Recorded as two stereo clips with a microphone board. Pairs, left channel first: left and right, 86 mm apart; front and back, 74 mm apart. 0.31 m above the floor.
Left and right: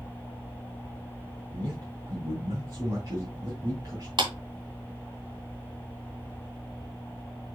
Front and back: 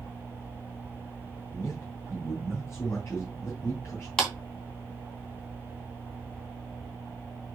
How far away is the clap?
About 2.5 m.